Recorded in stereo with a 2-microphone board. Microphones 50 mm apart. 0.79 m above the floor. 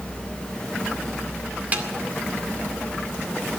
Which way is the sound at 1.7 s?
35° right (ahead or behind).